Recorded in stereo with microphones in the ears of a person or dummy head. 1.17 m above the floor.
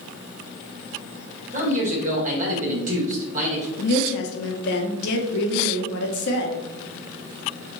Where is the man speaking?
45° right (ahead or behind), 1.1 m.